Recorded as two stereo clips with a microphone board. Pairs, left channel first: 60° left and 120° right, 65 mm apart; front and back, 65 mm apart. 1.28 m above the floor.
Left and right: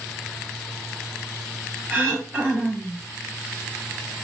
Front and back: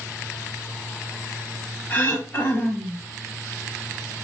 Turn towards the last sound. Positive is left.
turn(degrees=-55)